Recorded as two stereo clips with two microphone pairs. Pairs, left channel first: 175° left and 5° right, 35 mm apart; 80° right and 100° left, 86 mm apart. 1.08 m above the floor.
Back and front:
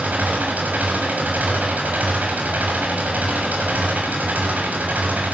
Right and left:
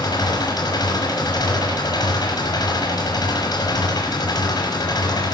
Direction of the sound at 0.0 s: 40° right.